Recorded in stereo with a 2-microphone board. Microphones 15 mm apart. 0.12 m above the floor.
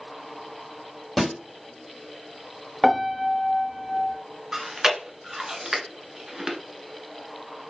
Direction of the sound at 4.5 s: 30° right (ahead or behind).